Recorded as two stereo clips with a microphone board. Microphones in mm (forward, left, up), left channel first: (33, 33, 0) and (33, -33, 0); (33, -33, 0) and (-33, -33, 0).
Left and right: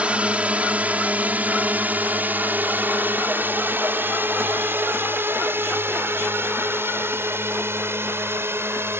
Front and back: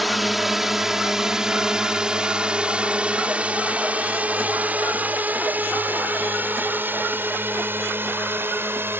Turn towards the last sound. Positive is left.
turn(degrees=-135)